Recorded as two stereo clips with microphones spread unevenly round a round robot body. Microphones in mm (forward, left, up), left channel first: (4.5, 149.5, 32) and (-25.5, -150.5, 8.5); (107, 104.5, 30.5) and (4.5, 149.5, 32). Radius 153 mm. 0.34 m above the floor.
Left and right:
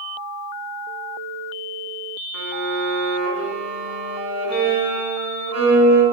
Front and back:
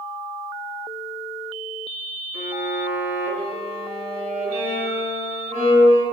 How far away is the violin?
About 0.9 m.